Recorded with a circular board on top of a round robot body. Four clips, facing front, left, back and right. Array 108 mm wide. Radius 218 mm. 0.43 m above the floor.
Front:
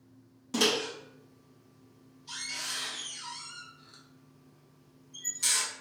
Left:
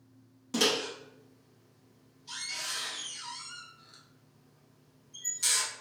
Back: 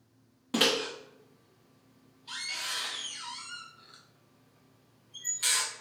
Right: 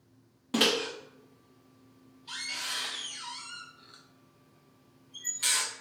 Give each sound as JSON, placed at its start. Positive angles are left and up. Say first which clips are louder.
{"t": 0.5, "sound": "a microwave", "louder": "right 2 dB, even", "azimuth_deg": -135, "distance_m": 0.9}